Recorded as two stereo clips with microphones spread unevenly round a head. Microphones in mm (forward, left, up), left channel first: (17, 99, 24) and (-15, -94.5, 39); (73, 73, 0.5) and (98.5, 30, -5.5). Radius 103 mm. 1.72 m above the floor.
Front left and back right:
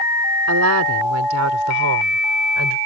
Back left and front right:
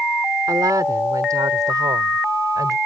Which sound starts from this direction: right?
A woman speaking, at 0.5 s.